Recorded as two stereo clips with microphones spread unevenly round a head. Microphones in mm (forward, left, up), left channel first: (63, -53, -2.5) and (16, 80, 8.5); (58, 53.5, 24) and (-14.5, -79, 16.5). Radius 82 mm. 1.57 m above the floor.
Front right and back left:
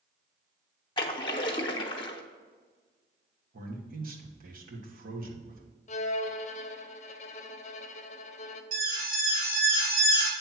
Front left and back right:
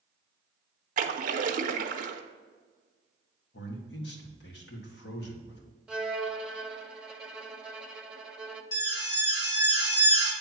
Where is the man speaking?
85° left, 1.6 m.